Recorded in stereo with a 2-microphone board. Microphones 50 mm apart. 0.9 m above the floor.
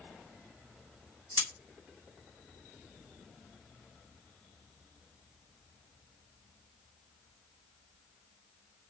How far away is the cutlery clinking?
About 0.5 m.